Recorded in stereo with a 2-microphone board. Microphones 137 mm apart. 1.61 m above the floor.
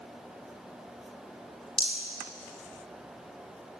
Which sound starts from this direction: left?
A rattle, at 1.8 s.